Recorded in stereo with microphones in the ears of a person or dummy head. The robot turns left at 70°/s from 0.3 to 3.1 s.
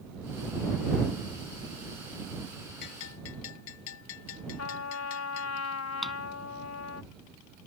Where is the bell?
60° left (ahead or behind); by 5.6 s 80° left.